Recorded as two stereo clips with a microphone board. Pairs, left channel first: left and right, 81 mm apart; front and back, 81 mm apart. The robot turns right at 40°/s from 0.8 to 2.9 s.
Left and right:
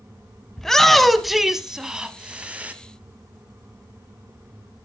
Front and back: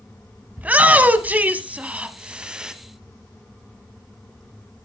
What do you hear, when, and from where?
0.6 s a shout: 165° left, 1.1 m; by 2.7 s 120° right, 1.1 m